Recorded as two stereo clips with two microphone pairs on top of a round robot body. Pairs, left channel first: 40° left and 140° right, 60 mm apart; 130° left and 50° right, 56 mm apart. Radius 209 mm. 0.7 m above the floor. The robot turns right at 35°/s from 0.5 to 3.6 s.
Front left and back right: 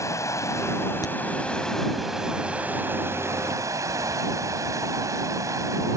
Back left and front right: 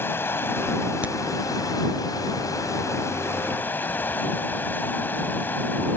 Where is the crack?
20° left; by 1.1 s 25° left.